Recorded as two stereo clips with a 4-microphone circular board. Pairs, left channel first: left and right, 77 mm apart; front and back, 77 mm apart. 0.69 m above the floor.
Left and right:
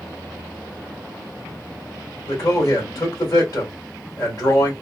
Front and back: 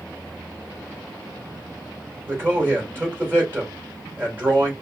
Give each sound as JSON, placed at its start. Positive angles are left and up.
{"t": 2.2, "sound": "a man speaking", "azimuth_deg": 120, "distance_m": 2.5}